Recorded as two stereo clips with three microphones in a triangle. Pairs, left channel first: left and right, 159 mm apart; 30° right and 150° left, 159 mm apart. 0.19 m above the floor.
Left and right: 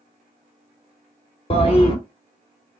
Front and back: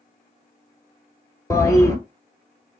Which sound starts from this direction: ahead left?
A toilet flushing, at 1.5 s.